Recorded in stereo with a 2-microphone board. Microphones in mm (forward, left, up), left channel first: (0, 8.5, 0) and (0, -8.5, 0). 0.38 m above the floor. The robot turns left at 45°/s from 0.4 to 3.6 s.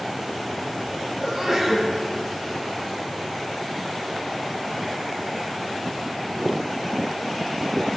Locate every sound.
1.2 s a sneeze: 25° right (ahead or behind), 3.5 m; by 1.9 s 55° right (ahead or behind), 3.5 m